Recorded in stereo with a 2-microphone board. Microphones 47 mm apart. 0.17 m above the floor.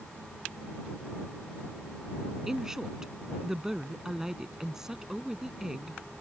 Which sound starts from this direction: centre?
A woman speaking, at 2.5 s.